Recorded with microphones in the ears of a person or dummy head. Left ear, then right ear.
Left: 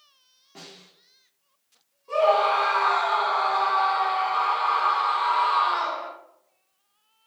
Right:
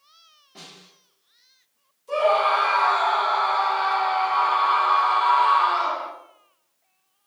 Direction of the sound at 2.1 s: 20° left (ahead or behind).